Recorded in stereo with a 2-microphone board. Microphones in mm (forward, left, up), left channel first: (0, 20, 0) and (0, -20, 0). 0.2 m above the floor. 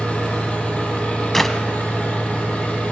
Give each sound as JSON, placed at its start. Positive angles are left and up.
{"t": 0.0, "sound": "an engine running", "side_deg": 30, "distance_m": 5.0}
{"t": 1.3, "sound": "a clap", "side_deg": 10, "distance_m": 0.9}